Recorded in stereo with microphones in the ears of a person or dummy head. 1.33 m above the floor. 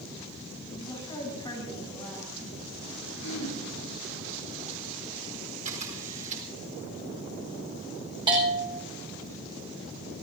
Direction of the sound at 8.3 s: 20° right (ahead or behind).